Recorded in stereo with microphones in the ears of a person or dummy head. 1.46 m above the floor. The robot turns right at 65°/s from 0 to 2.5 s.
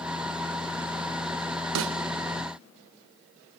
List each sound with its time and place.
1.8 s a snare drum: 75° right (ahead or behind), 0.6 m; by 1.9 s 65° right (ahead or behind), 0.6 m